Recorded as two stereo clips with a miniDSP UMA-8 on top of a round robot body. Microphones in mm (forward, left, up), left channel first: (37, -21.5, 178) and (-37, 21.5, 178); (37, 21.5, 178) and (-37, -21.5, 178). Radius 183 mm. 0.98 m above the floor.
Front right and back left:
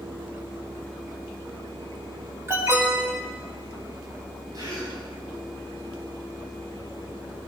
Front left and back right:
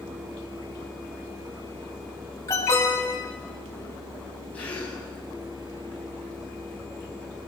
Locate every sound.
2.5 s an alarm: 90° left, 9 m
4.5 s a gasp: 105° left, 6.5 m